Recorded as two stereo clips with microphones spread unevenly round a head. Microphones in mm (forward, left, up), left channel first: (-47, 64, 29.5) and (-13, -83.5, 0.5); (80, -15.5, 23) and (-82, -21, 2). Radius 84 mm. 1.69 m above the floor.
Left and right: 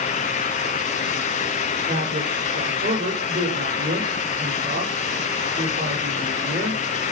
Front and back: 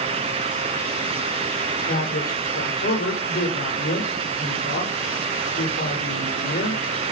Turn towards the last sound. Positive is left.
turn(degrees=-30)